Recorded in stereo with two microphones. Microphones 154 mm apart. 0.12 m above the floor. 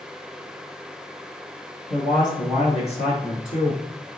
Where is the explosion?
I don't hear an explosion.